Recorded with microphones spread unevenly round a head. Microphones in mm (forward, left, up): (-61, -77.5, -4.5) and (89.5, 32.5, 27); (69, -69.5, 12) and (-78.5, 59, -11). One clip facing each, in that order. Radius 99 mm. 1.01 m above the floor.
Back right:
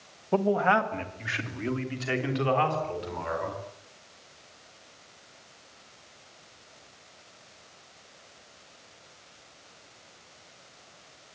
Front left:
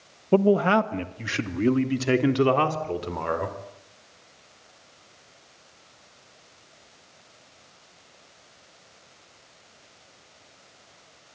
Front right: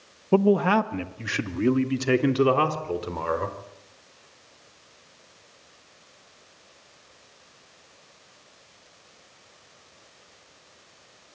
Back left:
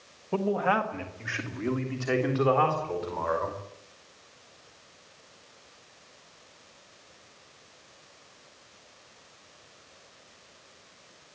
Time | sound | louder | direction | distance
0.3 | a man speaking | front left 5 dB, front right 8 dB | 15° right | 1.4 m